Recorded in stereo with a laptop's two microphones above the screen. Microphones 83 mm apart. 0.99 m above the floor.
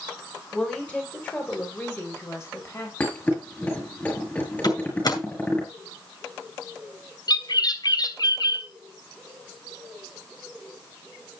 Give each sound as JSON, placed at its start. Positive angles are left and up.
{"t": 0.5, "sound": "a woman speaking", "side_deg": 10, "distance_m": 4.5}
{"t": 3.0, "sound": "a thud", "side_deg": 20, "distance_m": 7.0}
{"t": 4.6, "sound": "a door slam", "side_deg": 55, "distance_m": 8.5}
{"t": 7.3, "sound": "a bird", "side_deg": 55, "distance_m": 2.5}